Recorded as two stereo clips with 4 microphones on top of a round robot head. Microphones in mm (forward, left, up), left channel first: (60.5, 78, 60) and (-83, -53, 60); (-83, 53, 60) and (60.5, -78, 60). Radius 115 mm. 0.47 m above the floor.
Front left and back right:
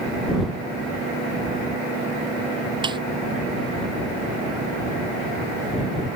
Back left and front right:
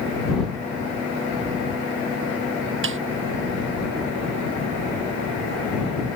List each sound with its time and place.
2.8 s a snare drum: 70° right